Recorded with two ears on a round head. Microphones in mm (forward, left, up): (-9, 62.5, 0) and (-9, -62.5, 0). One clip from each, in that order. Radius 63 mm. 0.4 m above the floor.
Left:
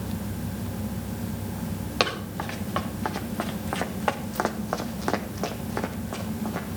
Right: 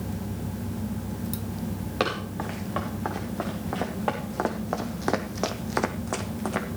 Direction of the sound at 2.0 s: 75° left (ahead or behind).